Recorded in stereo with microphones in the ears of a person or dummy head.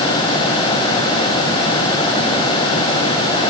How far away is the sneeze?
I don't hear a sneeze.